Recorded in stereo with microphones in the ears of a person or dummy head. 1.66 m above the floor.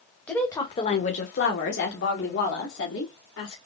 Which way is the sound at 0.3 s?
5° left (ahead or behind).